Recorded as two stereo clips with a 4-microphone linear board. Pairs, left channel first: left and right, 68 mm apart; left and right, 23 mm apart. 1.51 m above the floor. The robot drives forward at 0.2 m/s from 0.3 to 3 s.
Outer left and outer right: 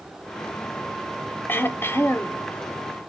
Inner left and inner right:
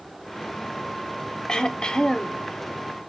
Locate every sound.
1.5 s throat clearing: 30° left (ahead or behind), 0.6 m; by 2.4 s 40° left (ahead or behind), 0.5 m